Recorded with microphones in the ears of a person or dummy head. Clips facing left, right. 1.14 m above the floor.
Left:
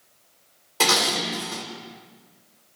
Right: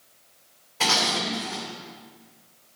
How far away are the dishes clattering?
About 2.5 m.